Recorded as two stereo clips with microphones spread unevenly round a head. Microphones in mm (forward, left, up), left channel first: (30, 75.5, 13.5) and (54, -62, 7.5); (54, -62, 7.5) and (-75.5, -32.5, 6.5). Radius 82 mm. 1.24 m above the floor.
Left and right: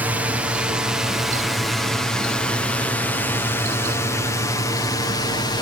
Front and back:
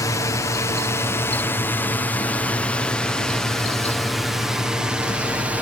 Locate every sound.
0.0 s a drone: 20° right; by 5.6 s 95° left